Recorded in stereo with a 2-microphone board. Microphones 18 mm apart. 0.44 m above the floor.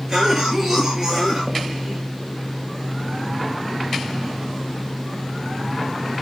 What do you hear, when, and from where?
0.1 s a cough: 10° right (ahead or behind), 8.5 m